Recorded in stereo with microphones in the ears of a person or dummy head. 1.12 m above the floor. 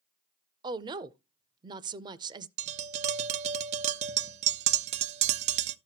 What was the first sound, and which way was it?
A woman speaking, 20° right (ahead or behind).